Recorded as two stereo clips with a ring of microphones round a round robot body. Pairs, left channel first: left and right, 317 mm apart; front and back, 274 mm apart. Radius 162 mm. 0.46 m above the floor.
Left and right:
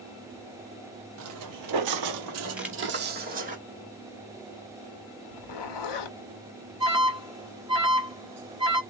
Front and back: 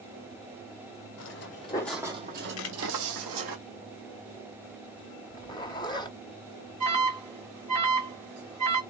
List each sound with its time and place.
1.2 s footsteps: 45° right, 0.8 m; by 3.6 s 155° right, 1.3 m
2.6 s a camera shutter: 5° right, 0.9 m
5.3 s a zipper: 75° left, 0.8 m
6.8 s an alarm: 160° right, 3.5 m